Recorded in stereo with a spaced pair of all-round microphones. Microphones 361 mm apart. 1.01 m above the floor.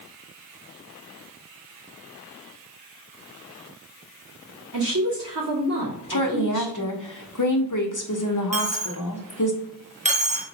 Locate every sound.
4.7 s a woman speaking: 45° right (ahead or behind), 2 m
6.1 s a woman speaking: 55° left (ahead or behind), 0.9 m
8.5 s a dropped coin: 20° right (ahead or behind), 0.7 m